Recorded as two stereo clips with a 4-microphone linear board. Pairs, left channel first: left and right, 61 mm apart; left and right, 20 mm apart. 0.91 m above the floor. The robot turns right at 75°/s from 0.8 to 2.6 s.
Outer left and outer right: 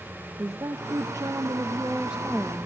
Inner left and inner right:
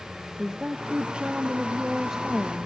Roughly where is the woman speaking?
Behind right.